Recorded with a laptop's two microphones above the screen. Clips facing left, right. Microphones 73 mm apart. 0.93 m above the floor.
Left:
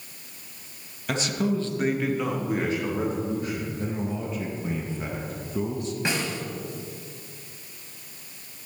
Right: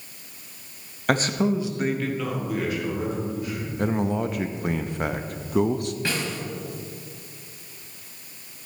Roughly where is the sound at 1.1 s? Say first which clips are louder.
Right 4 dB; right.